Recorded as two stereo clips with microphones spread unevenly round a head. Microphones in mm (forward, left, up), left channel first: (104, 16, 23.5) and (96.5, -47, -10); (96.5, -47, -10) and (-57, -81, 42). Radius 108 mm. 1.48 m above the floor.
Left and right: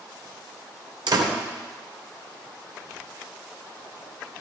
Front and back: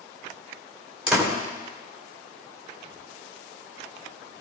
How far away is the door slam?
About 3.5 m.